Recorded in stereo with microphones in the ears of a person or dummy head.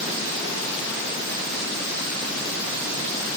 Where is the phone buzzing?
No phone buzzing in this recording.